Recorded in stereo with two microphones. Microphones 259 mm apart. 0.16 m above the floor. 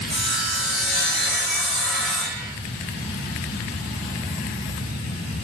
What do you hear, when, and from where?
0.1 s sawing: centre (ahead or behind), 2.5 m